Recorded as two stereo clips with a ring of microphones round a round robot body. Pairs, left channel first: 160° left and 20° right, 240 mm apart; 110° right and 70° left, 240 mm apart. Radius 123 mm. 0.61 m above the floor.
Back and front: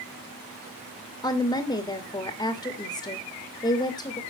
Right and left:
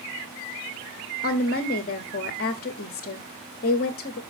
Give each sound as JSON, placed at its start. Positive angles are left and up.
{"t": 1.2, "sound": "a woman speaking", "azimuth_deg": -135, "distance_m": 1.4}